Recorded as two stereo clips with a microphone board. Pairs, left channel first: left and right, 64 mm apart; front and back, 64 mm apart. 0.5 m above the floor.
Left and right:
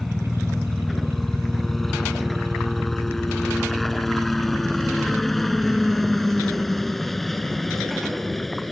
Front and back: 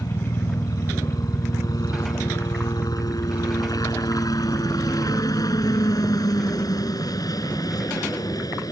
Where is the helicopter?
5° left.